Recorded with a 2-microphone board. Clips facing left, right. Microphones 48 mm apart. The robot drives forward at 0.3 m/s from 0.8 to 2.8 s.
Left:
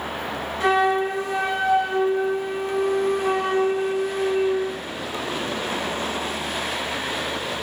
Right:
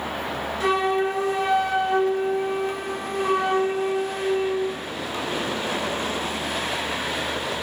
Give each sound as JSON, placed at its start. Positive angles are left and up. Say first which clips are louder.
{"t": 0.6, "sound": "a flute", "louder": "left 2 dB", "side_deg": 40, "distance_m": 0.9}